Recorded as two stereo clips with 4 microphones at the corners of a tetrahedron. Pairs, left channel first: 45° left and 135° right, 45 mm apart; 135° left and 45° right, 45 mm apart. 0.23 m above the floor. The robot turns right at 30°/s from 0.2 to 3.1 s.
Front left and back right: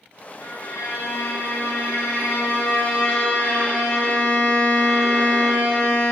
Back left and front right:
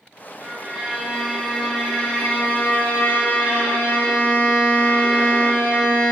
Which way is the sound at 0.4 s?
15° left.